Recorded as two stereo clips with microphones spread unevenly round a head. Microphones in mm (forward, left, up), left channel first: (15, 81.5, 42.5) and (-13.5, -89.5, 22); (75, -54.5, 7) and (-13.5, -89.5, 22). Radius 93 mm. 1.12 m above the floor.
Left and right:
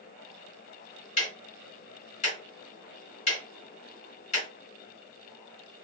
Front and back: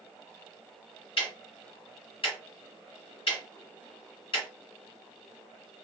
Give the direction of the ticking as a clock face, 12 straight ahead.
10 o'clock.